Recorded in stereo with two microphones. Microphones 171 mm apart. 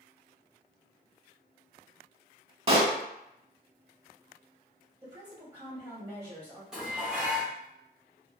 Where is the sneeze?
No sneeze in this recording.